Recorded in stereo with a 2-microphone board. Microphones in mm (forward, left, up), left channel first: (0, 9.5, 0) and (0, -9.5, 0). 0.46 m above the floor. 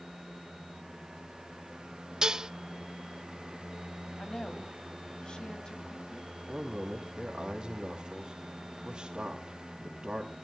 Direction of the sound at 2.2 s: 35° right (ahead or behind).